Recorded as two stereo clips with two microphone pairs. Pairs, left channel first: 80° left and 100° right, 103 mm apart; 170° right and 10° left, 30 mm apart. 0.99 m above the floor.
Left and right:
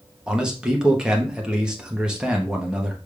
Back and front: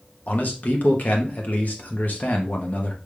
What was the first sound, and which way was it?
A man speaking, straight behind.